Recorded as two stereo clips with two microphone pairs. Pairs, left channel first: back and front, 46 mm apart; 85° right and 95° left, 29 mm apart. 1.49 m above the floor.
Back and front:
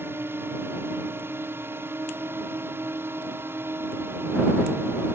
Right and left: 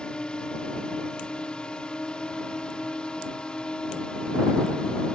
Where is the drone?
30° right.